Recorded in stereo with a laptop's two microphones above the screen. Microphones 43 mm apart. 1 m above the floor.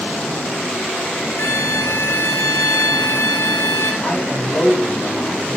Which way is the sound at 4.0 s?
50° left (ahead or behind).